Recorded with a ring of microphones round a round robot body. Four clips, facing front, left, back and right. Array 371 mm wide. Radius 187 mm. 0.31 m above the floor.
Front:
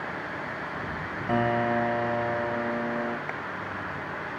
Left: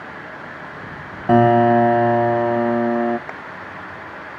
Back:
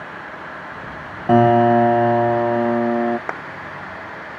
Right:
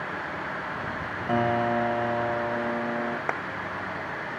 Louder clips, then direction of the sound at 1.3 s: Left 12 dB, back 13 dB; 135° left.